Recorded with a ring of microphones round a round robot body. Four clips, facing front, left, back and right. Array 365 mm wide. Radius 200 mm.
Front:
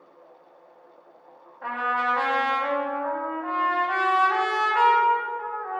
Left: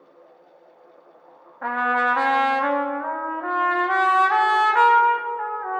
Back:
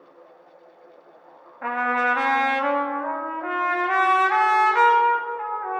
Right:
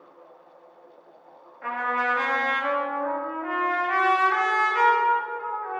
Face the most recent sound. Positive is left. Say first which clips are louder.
# left 5 dB, back 3 dB
turn(degrees=120)